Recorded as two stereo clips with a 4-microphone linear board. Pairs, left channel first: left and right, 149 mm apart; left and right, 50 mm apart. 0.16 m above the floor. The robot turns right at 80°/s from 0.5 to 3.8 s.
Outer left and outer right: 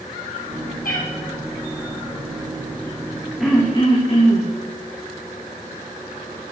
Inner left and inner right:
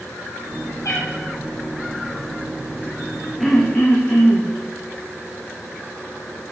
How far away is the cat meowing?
About 3 m.